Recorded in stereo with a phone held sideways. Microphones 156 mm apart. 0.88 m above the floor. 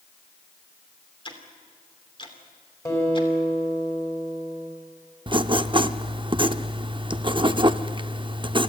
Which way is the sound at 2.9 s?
20° left (ahead or behind).